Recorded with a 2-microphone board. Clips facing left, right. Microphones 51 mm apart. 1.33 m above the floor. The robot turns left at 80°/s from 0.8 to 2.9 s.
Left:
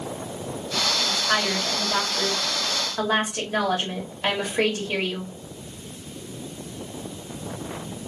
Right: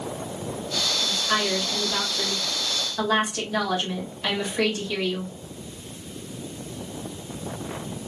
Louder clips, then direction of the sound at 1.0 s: Even; 175° right.